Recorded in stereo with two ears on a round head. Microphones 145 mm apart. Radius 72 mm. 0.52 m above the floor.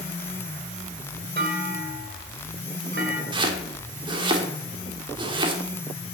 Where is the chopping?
30° right (ahead or behind), 1.5 m.